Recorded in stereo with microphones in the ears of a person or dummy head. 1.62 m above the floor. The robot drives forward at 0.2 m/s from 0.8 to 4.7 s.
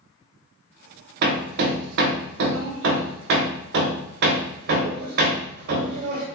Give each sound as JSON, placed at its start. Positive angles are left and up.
{"t": 1.2, "sound": "hammering", "side_deg": -55, "distance_m": 0.7}